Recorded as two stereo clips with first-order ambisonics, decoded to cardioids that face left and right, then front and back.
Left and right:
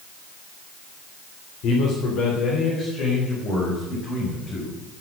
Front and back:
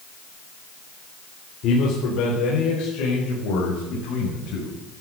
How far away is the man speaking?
About 3 m.